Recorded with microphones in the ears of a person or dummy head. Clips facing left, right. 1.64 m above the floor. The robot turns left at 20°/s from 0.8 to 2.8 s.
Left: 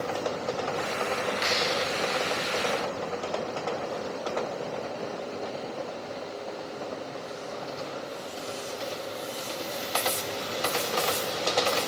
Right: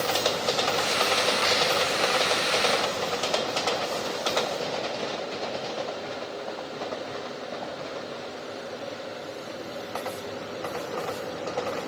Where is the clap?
15° left (ahead or behind), 7.5 m.